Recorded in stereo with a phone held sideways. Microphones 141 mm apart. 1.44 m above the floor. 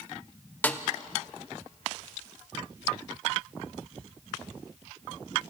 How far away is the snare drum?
About 0.9 m.